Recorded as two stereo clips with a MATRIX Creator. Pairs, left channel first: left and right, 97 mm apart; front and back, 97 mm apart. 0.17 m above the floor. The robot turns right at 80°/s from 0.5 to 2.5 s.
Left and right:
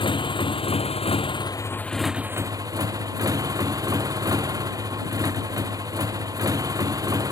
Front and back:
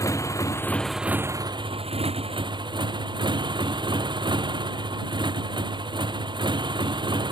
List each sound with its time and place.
0.0 s a motorcycle: 55° left; by 7.3 s 145° right